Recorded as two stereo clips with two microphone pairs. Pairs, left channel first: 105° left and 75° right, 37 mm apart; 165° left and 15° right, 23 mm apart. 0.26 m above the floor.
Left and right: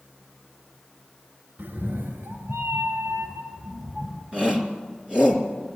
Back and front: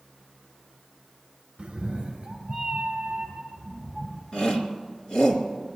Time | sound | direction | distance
1.6 | a cat meowing | 60° right | 1.8 m
4.3 | a shout | 135° right | 3.5 m